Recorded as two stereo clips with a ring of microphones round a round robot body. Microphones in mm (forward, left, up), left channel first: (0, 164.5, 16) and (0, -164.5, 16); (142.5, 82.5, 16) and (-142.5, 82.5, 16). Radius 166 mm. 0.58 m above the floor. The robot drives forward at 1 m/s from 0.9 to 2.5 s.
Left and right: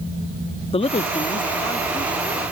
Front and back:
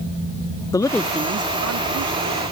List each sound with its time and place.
0.7 s a man speaking: 55° left; by 2.4 s 175° left